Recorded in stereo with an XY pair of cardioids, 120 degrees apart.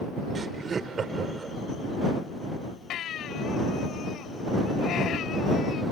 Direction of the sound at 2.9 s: 60° left.